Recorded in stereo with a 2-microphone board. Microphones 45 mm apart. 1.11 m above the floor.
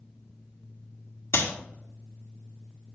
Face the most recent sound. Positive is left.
turn(degrees=80)